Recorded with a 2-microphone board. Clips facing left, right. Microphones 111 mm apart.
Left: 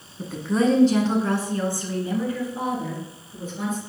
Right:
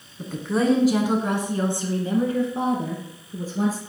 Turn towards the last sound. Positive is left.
turn(degrees=-35)  # may be behind; listen again after turning